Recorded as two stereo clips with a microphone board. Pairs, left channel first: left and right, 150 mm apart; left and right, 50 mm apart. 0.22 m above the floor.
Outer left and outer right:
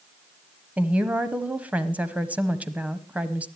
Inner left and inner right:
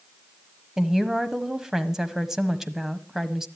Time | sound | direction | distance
0.8 | a woman speaking | 10° right (ahead or behind) | 1.0 m